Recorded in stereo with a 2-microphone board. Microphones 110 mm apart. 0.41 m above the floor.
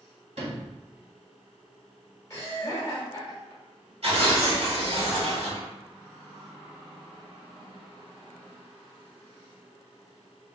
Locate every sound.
0.4 s a sliding door: 75° right (ahead or behind), 1.5 m
2.3 s laughter: 25° left (ahead or behind), 1.5 m
4.0 s tearing paper: 65° right (ahead or behind), 1.5 m